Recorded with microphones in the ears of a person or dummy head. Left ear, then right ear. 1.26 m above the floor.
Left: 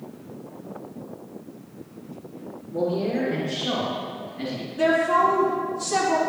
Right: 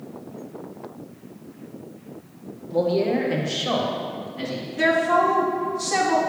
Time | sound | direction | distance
2.7 | a man speaking | 50° right (ahead or behind) | 0.9 m
4.8 | a woman speaking | 35° right (ahead or behind) | 3 m